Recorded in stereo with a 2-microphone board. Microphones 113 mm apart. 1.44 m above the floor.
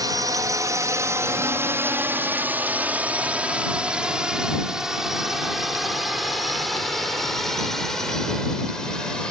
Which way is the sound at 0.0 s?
35° right (ahead or behind).